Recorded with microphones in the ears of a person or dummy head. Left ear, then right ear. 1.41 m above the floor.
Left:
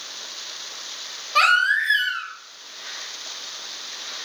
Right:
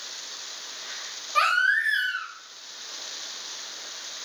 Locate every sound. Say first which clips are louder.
1.4 s a baby crying: left 4 dB; 5° left (ahead or behind), 0.8 m